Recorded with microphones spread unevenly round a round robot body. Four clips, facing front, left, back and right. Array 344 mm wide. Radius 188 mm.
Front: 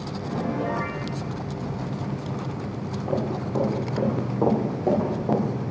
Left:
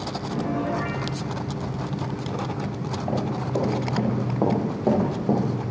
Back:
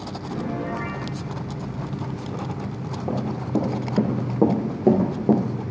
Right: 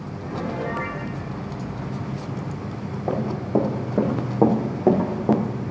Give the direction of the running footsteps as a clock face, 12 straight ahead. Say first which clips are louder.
Right 4 dB, back 1 dB; 5 o'clock.